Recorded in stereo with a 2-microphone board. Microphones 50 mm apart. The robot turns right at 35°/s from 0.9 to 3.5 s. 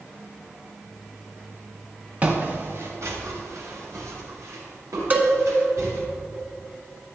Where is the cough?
No cough in this recording.